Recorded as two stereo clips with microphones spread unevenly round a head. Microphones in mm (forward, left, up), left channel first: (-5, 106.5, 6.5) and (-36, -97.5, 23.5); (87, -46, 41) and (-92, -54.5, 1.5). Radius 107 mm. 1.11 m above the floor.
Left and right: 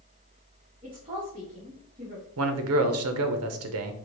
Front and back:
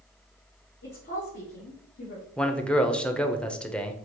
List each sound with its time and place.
0.8 s a woman speaking: 30° right, 1.2 m
2.4 s a man speaking: 90° right, 0.6 m